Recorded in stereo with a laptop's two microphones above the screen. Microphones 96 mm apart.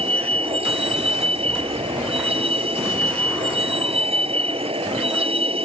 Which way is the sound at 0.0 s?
85° right.